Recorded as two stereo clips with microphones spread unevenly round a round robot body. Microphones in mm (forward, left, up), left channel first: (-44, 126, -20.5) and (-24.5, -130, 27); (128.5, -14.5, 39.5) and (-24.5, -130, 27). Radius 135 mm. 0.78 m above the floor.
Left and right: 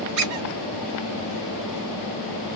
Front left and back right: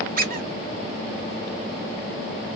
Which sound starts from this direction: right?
A squeak, at 0.2 s.